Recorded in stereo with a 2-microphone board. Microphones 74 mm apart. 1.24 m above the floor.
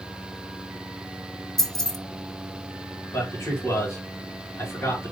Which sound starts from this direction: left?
A man speaking, at 3.1 s.